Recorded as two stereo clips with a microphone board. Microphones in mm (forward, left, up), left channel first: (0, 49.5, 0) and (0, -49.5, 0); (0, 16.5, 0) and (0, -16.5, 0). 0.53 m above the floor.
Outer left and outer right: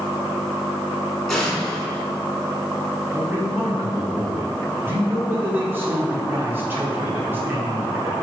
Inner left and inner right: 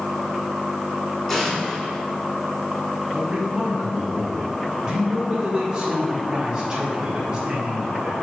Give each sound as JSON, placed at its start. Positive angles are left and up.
{"t": 1.3, "sound": "an explosion", "side_deg": 0, "distance_m": 2.0}
{"t": 3.1, "sound": "a man speaking", "side_deg": -20, "distance_m": 1.4}